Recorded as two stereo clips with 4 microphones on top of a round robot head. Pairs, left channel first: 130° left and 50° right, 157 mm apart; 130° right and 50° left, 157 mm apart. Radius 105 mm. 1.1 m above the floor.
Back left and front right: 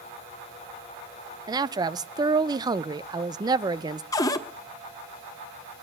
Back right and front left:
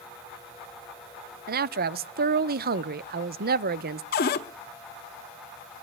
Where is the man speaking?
20° left, 0.5 m.